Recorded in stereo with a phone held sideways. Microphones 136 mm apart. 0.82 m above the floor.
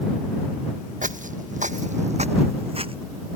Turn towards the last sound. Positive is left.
turn(degrees=-45)  # may be behind; listen again after turning